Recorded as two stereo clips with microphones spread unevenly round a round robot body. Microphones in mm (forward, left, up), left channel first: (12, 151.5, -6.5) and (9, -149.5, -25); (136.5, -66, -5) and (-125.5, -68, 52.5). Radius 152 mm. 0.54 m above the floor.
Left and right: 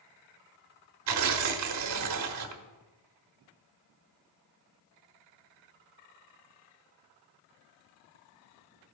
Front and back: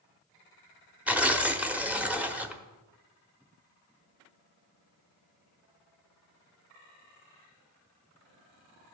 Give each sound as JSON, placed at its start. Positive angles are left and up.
{"t": 1.1, "sound": "tearing paper", "azimuth_deg": -85, "distance_m": 1.1}